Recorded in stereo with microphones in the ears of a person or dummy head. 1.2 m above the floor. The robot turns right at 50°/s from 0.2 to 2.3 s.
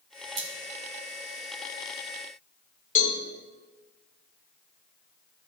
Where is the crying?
I don't hear crying.